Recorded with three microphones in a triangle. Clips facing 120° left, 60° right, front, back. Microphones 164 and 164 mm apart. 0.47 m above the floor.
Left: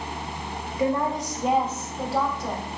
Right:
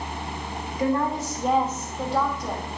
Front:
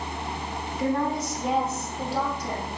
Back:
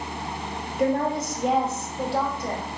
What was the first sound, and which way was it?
A woman speaking, 175° right.